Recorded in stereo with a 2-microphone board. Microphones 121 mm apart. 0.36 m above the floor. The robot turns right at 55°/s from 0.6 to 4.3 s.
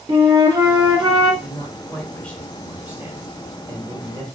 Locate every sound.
0.1 s a flute: 120° right, 0.6 m; by 1.3 s 85° right, 0.6 m
1.4 s a man speaking: 120° left, 1.1 m; by 4.2 s 85° right, 1.1 m